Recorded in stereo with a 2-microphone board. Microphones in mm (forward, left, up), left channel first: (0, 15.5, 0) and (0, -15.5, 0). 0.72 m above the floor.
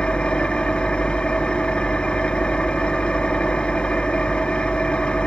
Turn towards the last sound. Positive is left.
turn(degrees=30)  # may be behind; listen again after turning